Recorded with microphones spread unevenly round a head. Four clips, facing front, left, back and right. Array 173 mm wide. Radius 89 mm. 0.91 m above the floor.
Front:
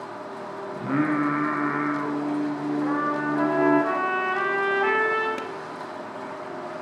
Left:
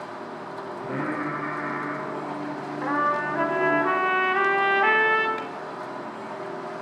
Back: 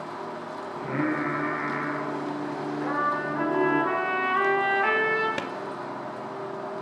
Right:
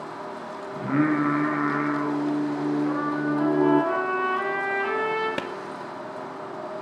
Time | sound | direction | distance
0.7 | singing | 40° right | 7 m
2.8 | a trumpet | 75° left | 6 m
5.4 | a clap | 105° right | 1.6 m